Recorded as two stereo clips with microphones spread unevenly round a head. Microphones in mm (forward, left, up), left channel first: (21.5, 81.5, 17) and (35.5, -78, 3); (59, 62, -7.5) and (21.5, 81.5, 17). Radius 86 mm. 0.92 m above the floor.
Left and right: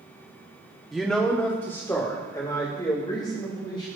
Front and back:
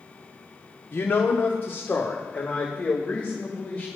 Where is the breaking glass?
I don't hear breaking glass.